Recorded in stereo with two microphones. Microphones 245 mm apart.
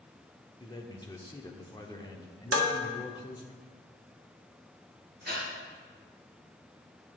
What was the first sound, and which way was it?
A man speaking, 15° left (ahead or behind).